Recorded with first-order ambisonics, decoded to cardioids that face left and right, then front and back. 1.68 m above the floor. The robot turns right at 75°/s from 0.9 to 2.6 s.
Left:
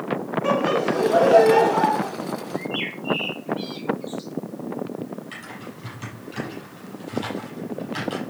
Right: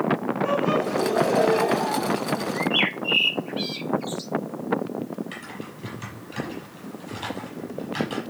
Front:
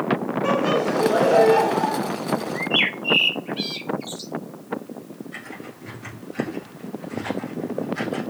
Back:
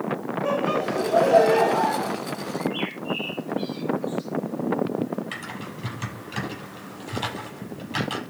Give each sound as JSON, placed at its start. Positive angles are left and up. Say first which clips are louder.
{"t": 0.4, "sound": "laughter", "louder": "left 3 dB, front 3 dB", "azimuth_deg": 25, "distance_m": 5.0}
{"t": 2.5, "sound": "a bird", "louder": "right 7 dB, front 8 dB", "azimuth_deg": -30, "distance_m": 1.0}
{"t": 5.3, "sound": "typing on a keyboard", "louder": "even, back 2 dB", "azimuth_deg": 180, "distance_m": 7.5}